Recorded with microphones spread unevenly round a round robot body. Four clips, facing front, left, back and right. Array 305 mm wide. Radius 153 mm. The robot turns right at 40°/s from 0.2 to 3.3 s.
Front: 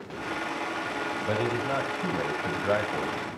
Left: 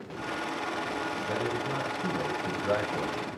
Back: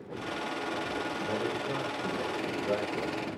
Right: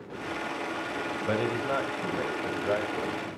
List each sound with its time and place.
1.3 s a man speaking: 60° right, 3 m; by 3.3 s 20° left, 3 m